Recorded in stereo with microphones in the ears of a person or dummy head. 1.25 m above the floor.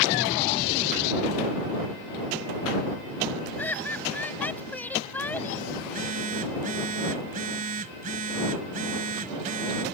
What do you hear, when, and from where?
3.6 s laughter: 5° left (ahead or behind)
5.8 s a phone buzzing: 55° right (ahead or behind)